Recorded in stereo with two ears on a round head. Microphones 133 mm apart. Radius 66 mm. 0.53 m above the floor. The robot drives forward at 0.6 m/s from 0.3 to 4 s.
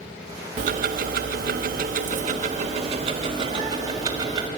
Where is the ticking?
55° right (ahead or behind), 1.0 m; by 4.5 s 25° right (ahead or behind), 1.8 m.